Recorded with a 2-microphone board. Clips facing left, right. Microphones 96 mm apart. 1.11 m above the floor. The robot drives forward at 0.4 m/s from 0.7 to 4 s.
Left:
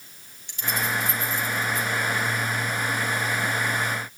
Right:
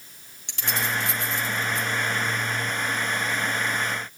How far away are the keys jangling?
About 1.6 m.